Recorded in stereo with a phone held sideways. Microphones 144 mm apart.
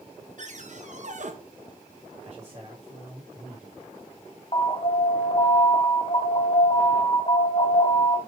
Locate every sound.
0.4 s a cupboard door: 55° right (ahead or behind), 1.1 m
2.2 s a man speaking: 50° right (ahead or behind), 2 m
4.5 s an alarm: 40° left (ahead or behind), 1.3 m